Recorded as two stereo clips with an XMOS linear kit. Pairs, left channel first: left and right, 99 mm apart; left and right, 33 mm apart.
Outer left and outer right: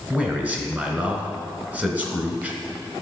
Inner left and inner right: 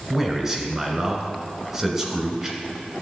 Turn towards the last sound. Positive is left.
turn(degrees=-15)  # may be behind; listen again after turning